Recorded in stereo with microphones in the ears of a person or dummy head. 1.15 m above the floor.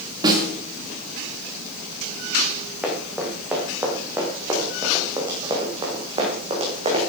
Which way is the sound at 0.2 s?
25° right (ahead or behind).